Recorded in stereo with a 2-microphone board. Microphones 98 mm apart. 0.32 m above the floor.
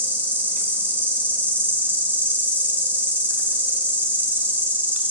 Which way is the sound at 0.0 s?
20° right (ahead or behind).